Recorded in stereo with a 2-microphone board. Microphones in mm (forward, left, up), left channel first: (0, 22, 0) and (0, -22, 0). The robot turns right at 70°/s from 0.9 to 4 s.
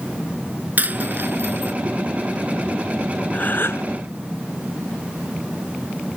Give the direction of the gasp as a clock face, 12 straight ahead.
11 o'clock.